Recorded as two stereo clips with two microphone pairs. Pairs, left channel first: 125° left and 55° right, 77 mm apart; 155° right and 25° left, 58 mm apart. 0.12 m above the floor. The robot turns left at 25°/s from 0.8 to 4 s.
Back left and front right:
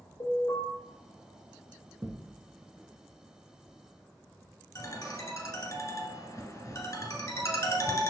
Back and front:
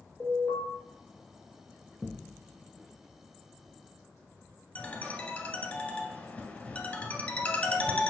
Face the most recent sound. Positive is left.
turn(degrees=145)